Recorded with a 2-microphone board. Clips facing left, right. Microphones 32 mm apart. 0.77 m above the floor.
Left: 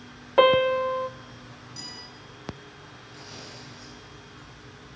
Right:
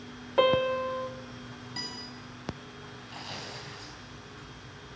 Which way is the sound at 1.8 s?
55° right (ahead or behind).